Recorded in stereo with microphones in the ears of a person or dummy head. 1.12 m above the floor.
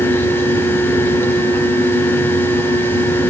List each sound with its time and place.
0.0 s a fan: 15° left (ahead or behind), 1.6 m